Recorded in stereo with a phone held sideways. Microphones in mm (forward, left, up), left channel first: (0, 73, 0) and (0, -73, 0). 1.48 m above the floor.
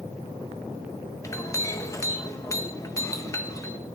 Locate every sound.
1.2 s a clink: 20° left (ahead or behind), 0.7 m